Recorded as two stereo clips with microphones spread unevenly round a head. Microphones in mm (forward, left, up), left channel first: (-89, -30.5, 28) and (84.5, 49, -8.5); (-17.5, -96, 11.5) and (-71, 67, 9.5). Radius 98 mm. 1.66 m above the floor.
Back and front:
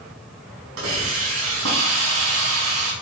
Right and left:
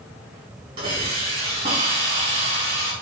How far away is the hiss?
About 5.5 m.